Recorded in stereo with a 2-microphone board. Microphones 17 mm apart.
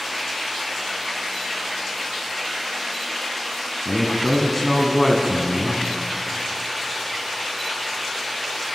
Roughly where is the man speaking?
Centre.